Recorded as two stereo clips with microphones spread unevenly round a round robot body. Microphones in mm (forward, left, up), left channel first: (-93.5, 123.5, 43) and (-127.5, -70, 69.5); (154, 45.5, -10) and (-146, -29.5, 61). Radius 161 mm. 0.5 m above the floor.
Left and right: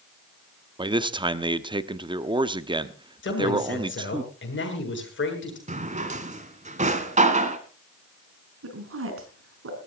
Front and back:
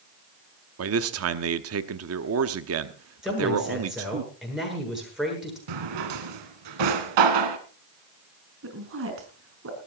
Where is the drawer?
155° right, 2 m.